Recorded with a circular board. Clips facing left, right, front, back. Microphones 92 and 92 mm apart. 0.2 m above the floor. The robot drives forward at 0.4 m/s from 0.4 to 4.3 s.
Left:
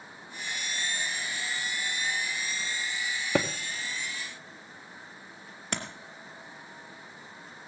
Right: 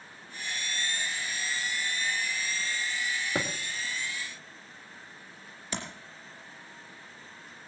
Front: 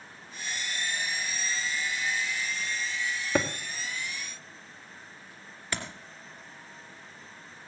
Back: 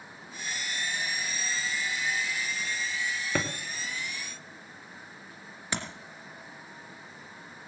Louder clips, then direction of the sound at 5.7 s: Left 2 dB, back 1 dB; 110° left.